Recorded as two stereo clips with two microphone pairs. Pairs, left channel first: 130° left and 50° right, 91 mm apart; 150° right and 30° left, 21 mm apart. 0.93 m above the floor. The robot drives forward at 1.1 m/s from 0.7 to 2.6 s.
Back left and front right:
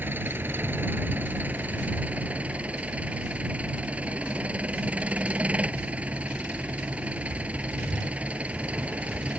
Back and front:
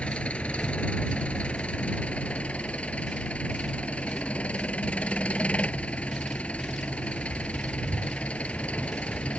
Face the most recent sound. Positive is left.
turn(degrees=-130)